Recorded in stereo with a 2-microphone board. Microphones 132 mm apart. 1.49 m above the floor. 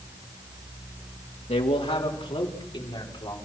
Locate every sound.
1.5 s a man speaking: 55° left (ahead or behind), 2.5 m; by 3.4 s 35° left (ahead or behind), 5 m